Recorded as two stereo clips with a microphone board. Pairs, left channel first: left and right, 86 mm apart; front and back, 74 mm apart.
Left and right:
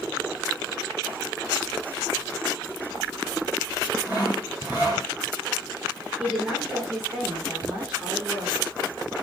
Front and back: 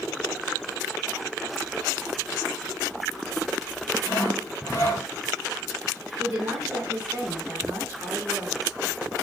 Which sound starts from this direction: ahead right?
Sawing, at 4.0 s.